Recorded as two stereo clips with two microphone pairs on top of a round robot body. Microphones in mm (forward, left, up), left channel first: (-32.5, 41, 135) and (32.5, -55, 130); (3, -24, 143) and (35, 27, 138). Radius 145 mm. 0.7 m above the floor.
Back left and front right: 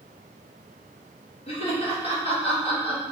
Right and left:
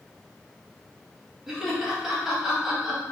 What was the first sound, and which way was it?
Laughter, 135° left.